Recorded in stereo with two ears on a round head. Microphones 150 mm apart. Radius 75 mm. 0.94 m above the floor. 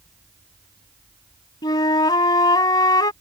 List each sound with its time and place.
1.6 s a flute: 25° left (ahead or behind)